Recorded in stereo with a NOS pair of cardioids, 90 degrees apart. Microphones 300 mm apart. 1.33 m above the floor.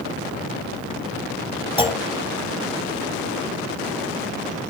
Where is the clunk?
15° left, 1.6 m.